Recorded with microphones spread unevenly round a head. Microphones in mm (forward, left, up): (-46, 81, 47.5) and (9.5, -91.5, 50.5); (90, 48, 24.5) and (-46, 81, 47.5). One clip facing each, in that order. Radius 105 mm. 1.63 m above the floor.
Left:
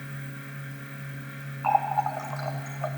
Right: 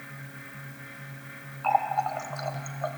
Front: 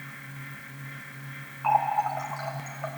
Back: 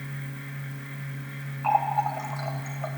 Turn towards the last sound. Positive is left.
turn(degrees=-140)